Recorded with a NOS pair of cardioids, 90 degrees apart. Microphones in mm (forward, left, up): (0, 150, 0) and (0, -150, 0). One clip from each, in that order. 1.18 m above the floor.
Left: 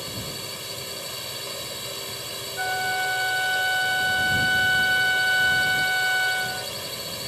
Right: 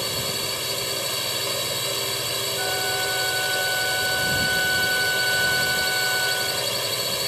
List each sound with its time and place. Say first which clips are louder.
0.0 s a drone: right 7 dB; 50° right
2.6 s a flute: left 3 dB; 35° left